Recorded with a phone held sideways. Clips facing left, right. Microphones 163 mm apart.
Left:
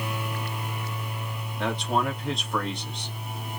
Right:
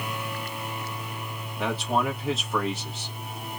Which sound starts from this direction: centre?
A man speaking, at 1.6 s.